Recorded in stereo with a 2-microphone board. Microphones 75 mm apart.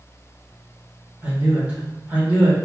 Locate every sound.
1.2 s a man speaking: 15° right (ahead or behind), 1.4 m